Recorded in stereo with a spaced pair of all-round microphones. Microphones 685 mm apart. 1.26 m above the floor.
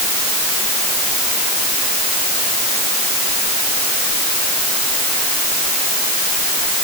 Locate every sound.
Only background noise.